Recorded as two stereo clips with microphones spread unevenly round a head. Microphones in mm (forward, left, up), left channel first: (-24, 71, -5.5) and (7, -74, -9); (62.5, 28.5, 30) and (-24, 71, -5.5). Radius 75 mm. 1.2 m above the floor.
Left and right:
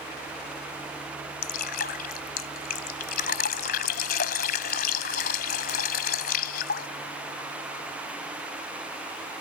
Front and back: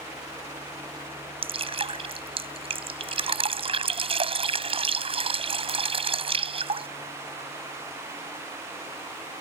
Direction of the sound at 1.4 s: 120° left.